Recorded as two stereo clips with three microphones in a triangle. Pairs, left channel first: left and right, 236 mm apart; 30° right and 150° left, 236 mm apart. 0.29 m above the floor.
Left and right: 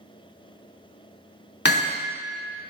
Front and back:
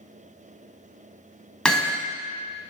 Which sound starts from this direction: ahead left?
Hammering, at 1.6 s.